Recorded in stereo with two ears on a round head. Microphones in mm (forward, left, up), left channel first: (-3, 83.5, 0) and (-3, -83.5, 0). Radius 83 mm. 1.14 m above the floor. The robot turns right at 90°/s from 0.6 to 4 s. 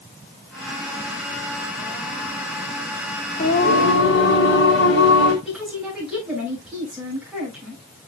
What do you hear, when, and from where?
3.4 s singing: 45° left, 3.5 m; by 5.3 s 100° left, 3.5 m
5.5 s a woman speaking: 5° right (ahead or behind), 6 m